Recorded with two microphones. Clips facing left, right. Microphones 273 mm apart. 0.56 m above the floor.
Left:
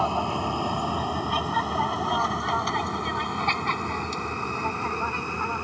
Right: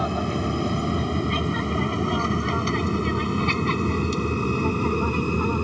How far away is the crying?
I don't hear crying.